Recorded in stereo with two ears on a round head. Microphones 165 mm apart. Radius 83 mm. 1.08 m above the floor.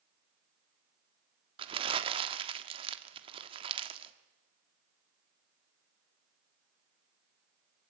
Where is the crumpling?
30° right (ahead or behind), 1.4 m.